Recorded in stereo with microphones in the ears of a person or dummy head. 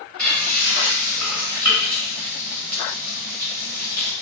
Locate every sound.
0.2 s frying: 5° left (ahead or behind), 1.1 m